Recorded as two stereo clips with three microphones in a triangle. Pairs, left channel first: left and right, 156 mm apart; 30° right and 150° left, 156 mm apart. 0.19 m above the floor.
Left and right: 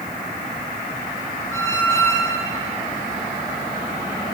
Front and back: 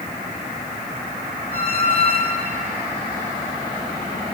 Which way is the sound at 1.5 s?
160° left.